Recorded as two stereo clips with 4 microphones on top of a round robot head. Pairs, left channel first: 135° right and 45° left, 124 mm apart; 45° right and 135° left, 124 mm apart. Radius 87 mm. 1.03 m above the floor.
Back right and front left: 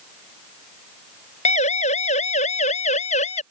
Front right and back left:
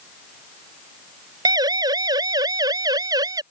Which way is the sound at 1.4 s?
165° right.